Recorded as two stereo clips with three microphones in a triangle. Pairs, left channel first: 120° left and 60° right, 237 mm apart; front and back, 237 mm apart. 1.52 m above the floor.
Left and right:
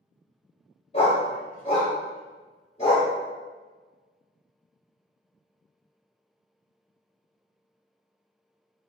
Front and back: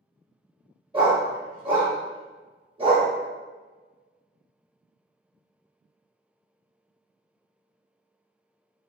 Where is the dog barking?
145° left, 1.0 m.